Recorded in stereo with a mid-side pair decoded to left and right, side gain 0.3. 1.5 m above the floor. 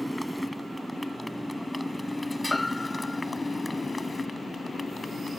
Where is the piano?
25° left.